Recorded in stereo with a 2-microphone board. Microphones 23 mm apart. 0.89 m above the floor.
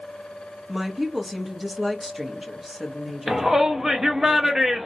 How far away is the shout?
About 1.0 m.